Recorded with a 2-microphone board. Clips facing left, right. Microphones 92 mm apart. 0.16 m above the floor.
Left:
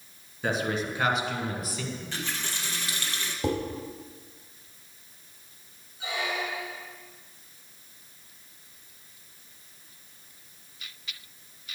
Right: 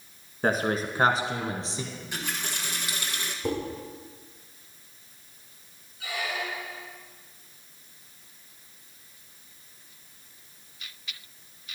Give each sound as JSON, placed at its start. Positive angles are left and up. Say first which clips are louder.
{"t": 0.4, "sound": "a man speaking", "louder": "right 3 dB", "side_deg": -45, "distance_m": 1.5}
{"t": 1.9, "sound": "a running tap", "louder": "even", "side_deg": -15, "distance_m": 1.5}
{"t": 3.4, "sound": "dishes clattering", "louder": "left 1 dB", "side_deg": 80, "distance_m": 4.5}
{"t": 6.0, "sound": "a squeak", "louder": "left 1 dB", "side_deg": 25, "distance_m": 1.2}